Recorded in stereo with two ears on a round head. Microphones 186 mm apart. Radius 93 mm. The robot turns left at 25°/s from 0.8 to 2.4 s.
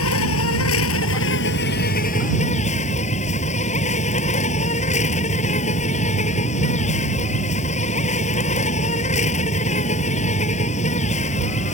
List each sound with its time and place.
0.0 s an insect: 75° left; by 11.8 s 35° left